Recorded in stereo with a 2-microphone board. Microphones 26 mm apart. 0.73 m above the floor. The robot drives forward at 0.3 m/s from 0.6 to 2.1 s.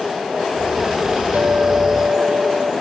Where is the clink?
75° right (ahead or behind), 3 m; by 2.7 s 80° right, 2.5 m.